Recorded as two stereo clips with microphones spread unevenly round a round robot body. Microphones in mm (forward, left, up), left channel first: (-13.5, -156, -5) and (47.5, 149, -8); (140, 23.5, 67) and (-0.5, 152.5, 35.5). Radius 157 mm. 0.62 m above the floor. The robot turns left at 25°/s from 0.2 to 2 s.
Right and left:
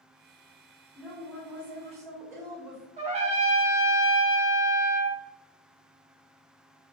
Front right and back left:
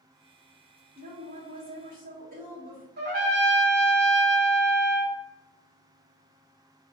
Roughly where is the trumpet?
Behind left.